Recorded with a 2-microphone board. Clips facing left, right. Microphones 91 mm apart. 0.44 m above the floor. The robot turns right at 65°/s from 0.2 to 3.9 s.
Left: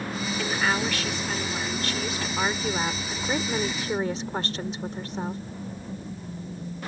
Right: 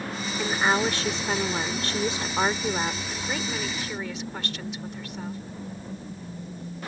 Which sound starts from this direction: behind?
A woman speaking, at 0.4 s.